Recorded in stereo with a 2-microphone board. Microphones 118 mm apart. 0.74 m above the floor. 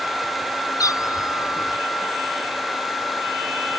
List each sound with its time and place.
0.8 s a cat meowing: 30° left (ahead or behind); by 1.8 s 35° left (ahead or behind)